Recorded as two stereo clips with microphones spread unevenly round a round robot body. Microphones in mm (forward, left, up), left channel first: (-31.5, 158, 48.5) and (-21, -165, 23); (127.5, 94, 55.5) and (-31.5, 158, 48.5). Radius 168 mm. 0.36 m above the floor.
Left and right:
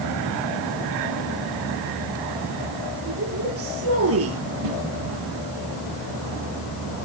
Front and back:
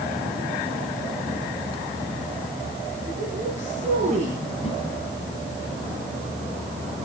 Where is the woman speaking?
135° right, 7 m.